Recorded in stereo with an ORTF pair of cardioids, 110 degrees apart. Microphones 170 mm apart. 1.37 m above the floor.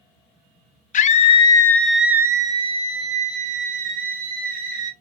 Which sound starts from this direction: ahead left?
A scream, at 0.9 s.